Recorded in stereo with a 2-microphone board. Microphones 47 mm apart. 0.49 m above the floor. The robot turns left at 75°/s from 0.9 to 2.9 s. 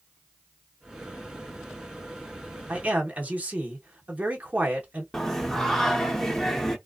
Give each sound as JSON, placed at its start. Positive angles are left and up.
{"t": 2.7, "sound": "a man speaking", "side_deg": -25, "distance_m": 0.8}
{"t": 5.1, "sound": "singing", "side_deg": 10, "distance_m": 0.6}